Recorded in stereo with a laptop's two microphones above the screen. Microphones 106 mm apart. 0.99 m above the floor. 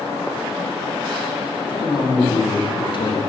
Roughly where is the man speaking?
Left.